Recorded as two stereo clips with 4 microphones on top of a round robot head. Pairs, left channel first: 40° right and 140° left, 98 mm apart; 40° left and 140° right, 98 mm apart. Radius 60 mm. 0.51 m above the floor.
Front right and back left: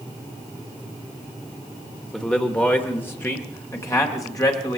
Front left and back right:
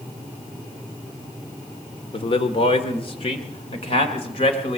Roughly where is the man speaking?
Ahead left.